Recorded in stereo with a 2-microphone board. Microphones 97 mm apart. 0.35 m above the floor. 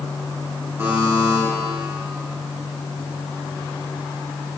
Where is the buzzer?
25° right (ahead or behind), 5 m.